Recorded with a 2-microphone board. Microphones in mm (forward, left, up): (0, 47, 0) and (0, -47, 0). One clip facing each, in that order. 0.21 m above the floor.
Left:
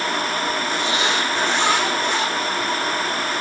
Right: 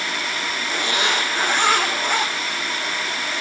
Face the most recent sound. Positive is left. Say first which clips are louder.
# left 1 dB
turn(degrees=-50)  # may be behind; listen again after turning